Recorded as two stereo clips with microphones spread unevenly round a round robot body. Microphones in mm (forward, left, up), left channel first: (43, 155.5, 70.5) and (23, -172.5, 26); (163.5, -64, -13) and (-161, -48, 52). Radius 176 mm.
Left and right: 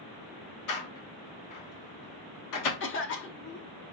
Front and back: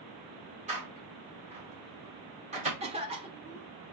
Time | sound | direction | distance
0.7 | a door slam | 100° left | 1.2 m
2.8 | a cough | 105° left | 0.8 m